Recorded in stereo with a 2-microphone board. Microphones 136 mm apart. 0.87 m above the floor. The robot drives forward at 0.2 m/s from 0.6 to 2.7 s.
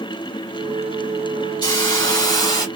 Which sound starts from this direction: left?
A hiss, at 1.6 s.